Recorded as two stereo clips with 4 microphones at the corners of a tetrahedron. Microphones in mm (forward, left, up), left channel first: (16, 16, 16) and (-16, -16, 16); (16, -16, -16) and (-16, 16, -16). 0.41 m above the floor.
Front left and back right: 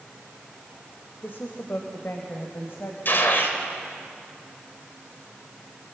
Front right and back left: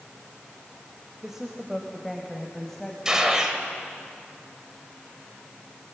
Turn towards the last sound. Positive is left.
turn(degrees=60)